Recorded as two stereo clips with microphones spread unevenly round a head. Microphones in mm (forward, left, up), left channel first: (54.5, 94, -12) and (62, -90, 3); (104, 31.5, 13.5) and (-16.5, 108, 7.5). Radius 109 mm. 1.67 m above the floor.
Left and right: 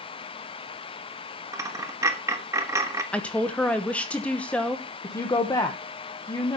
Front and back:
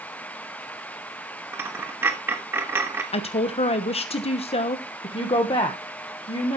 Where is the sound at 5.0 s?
20° left, 1.7 m.